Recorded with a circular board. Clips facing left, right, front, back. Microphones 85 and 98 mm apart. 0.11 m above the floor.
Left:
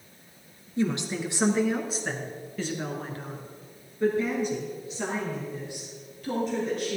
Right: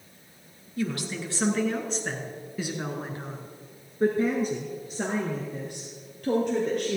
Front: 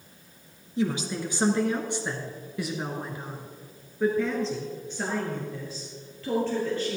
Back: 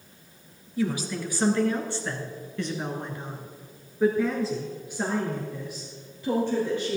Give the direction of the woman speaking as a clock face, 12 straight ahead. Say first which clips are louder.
Left 3 dB, even; 11 o'clock.